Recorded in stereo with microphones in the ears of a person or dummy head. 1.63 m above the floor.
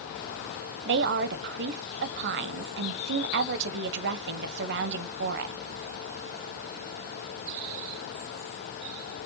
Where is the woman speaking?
60° right (ahead or behind), 0.9 m.